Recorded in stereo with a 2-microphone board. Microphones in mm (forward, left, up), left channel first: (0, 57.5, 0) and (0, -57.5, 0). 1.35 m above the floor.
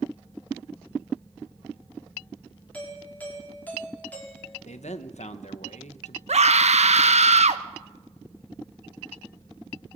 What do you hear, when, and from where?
2.7 s a doorbell: 15° left (ahead or behind), 5.5 m
4.6 s a man speaking: 85° left, 1.1 m
6.3 s a scream: 75° right (ahead or behind), 1.4 m